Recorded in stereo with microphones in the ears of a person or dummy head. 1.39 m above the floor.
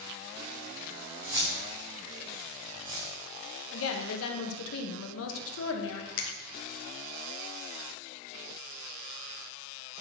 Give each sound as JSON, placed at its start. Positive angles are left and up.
{"t": 1.2, "sound": "keys jangling", "side_deg": -20, "distance_m": 3.0}
{"t": 3.7, "sound": "a woman speaking", "side_deg": 75, "distance_m": 1.4}
{"t": 6.2, "sound": "a finger snap", "side_deg": 50, "distance_m": 1.2}